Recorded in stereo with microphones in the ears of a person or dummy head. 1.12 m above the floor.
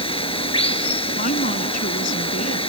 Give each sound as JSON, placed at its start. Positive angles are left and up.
{"t": 0.0, "sound": "running water", "side_deg": 30}
{"t": 1.1, "sound": "a woman speaking", "side_deg": 50}